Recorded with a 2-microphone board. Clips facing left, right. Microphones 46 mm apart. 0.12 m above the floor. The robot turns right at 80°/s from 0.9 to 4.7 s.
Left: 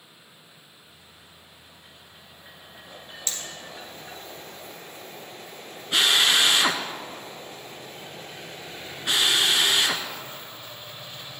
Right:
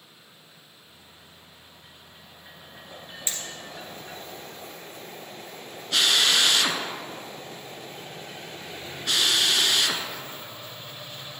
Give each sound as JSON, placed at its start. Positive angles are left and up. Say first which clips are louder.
{"t": 3.3, "sound": "hammering", "louder": "even", "side_deg": -20, "distance_m": 1.5}
{"t": 5.9, "sound": "a drill", "louder": "left 2 dB", "side_deg": 20, "distance_m": 0.9}